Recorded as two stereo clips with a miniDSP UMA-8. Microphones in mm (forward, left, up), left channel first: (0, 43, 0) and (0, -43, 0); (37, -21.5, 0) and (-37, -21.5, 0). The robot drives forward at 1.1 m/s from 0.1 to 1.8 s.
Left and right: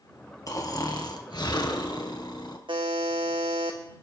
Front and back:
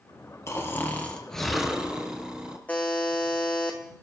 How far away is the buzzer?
About 1.9 m.